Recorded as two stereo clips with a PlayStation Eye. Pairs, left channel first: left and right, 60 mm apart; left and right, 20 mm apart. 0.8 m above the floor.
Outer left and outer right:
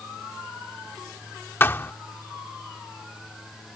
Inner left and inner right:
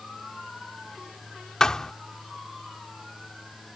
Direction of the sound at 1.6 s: 40° left (ahead or behind).